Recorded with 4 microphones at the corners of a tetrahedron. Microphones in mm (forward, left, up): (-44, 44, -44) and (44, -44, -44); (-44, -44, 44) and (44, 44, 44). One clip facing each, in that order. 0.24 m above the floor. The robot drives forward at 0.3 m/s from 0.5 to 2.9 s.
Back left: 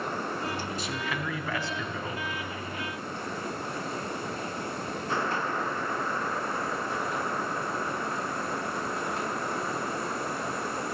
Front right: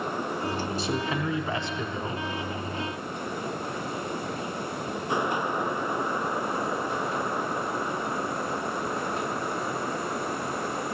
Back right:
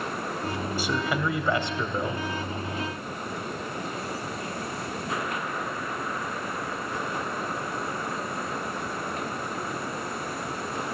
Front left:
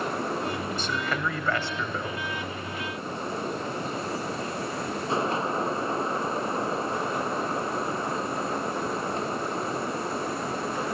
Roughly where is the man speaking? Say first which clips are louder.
Front right 5 dB, back right 2 dB; ahead right.